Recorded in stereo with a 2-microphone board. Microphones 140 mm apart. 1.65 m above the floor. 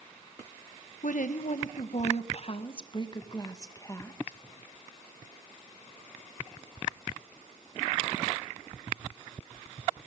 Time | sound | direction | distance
1.0 | a woman speaking | 75° left (ahead or behind) | 1.9 m